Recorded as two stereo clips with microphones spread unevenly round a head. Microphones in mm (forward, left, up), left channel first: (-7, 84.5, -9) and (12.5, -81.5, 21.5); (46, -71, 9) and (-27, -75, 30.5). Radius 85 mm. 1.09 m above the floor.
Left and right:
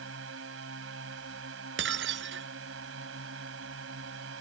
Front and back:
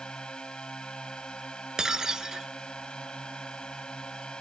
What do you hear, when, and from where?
0.0 s a drone: 75° right
1.8 s breaking glass: 100° right